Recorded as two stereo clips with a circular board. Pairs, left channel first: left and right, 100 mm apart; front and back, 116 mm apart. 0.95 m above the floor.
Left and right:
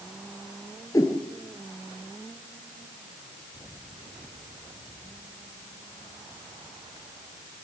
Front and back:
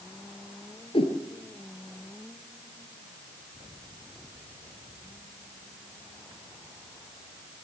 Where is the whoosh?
35° left, 3 m.